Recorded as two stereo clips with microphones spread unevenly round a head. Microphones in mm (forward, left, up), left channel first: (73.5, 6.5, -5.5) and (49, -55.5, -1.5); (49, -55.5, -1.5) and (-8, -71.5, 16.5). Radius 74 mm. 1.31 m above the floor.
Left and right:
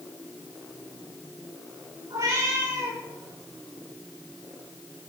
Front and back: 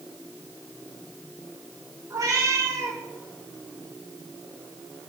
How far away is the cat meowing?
About 1.8 m.